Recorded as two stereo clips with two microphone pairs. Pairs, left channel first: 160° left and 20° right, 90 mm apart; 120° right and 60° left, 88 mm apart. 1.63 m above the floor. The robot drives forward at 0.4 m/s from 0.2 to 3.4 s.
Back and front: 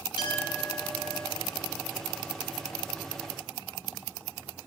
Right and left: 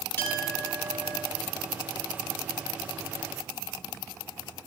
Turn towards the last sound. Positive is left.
turn(degrees=175)